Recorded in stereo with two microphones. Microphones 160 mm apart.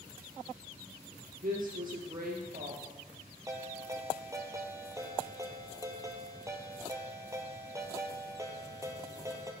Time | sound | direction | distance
1.4 | a woman speaking | 60° right (ahead or behind) | 3.5 m
3.5 | a ringtone | 20° right (ahead or behind) | 1.5 m